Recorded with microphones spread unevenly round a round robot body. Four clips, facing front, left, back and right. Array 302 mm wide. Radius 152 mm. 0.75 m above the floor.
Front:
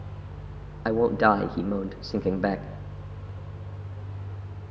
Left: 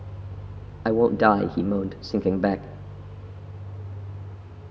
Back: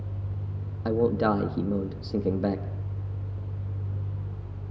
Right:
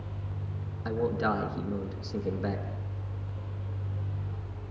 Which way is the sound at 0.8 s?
90° left.